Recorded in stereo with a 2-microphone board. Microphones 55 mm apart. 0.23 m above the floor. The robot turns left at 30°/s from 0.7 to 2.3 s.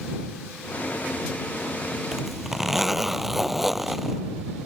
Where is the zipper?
10° right (ahead or behind); by 4.2 s centre (ahead or behind).